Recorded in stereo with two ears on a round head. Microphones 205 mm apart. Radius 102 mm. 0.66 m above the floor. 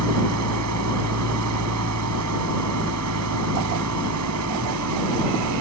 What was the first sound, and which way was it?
An engine running, 80° right.